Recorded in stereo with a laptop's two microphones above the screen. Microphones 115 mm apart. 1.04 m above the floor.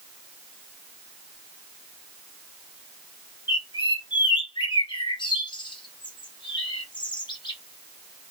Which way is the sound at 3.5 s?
40° left (ahead or behind).